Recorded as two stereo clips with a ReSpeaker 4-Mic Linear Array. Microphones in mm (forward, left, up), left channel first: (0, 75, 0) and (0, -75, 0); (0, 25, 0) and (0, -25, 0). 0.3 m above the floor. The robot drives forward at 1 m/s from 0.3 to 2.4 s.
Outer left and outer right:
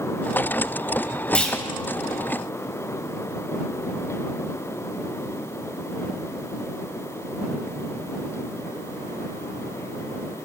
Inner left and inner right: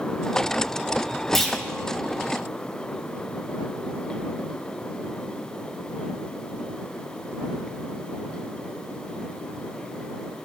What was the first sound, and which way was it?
A clunk, 5° left (ahead or behind).